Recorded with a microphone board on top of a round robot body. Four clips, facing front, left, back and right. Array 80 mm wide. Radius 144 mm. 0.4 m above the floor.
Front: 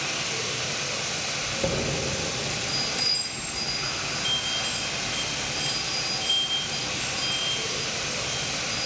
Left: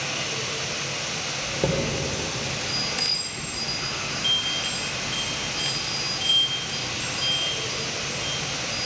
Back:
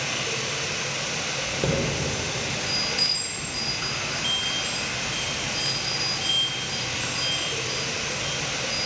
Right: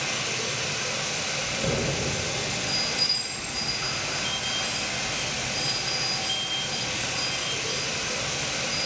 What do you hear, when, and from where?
0.0 s running water: 175° right, 2 m
1.4 s a chime: 110° left, 2 m